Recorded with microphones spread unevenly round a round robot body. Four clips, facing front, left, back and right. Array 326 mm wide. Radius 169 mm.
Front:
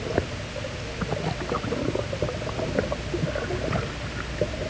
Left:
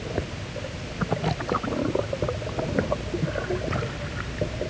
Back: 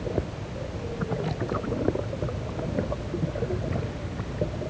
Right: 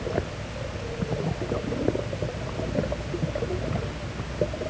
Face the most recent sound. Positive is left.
No sound to turn to.